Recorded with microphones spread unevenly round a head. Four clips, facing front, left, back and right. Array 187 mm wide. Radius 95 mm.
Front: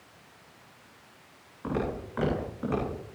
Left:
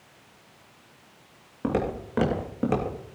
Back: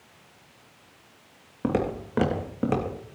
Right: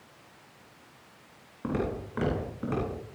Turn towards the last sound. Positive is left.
turn(degrees=125)